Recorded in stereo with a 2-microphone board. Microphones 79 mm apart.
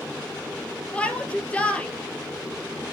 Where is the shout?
15° left (ahead or behind), 2 m.